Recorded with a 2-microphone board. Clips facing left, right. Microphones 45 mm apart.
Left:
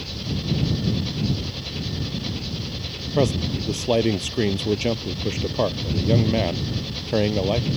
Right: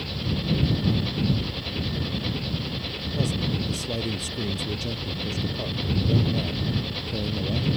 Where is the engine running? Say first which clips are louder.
Even; 10° right (ahead or behind).